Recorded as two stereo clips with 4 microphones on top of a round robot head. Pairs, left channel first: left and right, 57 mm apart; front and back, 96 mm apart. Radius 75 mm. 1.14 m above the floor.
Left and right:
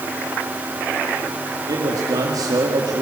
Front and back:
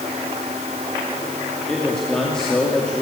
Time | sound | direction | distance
1.7 | a man speaking | 85° right | 2.5 m